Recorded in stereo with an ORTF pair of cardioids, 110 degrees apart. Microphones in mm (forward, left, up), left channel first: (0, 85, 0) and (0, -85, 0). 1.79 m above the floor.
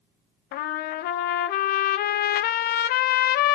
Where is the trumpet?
65° left, 0.6 m.